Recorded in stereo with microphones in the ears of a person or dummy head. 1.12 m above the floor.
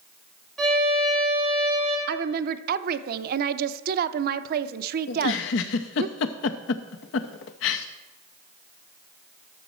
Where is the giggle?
65° left (ahead or behind), 0.6 m.